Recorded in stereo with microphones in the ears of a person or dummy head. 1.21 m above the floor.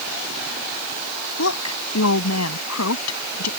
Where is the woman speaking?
90° left; by 3.5 s 85° left.